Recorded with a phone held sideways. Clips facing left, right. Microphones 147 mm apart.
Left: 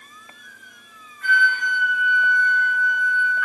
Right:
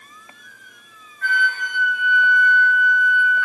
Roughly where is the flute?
Right.